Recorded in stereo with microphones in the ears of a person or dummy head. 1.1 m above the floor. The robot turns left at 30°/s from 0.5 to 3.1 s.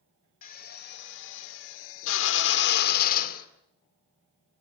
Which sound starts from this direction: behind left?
A drill, at 0.4 s.